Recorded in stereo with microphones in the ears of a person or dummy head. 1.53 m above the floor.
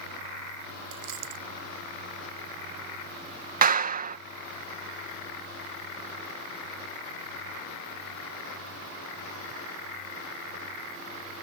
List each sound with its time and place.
0.9 s a dropped coin: 70° right (ahead or behind)
3.6 s a clap: 40° right (ahead or behind)